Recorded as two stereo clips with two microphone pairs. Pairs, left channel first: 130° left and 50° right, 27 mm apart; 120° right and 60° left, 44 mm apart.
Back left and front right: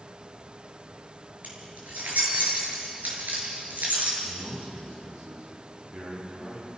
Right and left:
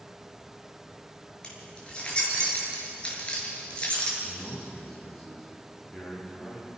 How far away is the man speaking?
About 10 m.